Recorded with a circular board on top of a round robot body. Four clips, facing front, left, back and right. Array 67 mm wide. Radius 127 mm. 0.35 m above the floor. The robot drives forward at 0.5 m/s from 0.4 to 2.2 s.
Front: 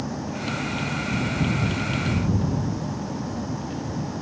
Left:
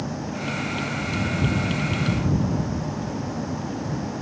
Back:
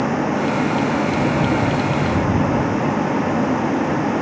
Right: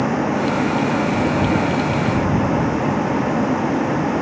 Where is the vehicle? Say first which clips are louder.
Right 11 dB, back 11 dB; 135° right; by 4.2 s 140° right.